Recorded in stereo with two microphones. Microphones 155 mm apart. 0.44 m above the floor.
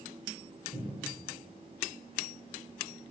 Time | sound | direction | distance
0.7 | a cupboard door | 45° right (ahead or behind) | 3 m